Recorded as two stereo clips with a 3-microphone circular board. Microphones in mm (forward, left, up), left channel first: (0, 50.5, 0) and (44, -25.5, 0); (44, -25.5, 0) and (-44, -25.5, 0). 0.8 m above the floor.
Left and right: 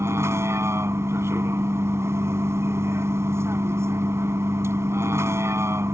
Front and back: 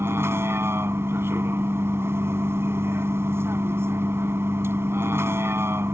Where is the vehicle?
120° right.